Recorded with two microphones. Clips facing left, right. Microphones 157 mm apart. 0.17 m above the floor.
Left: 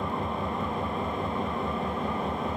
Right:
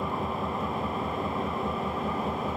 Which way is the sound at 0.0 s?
5° right (ahead or behind).